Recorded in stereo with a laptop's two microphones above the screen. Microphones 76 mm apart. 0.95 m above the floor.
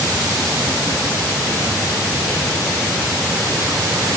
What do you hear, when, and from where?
Only background noise.